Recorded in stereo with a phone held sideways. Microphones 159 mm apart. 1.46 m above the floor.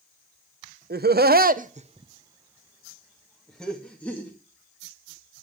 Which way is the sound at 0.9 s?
80° right.